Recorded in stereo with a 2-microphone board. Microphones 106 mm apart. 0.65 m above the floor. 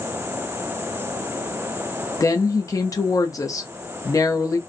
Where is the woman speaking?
30° left (ahead or behind), 0.7 m.